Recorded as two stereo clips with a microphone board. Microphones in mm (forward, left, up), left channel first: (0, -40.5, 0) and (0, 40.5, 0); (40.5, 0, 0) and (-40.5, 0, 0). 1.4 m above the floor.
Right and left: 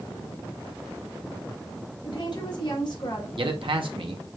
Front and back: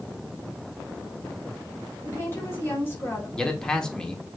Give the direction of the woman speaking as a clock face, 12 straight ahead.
2 o'clock.